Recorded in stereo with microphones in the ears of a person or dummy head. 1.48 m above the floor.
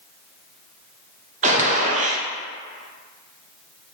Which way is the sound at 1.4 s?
45° right (ahead or behind).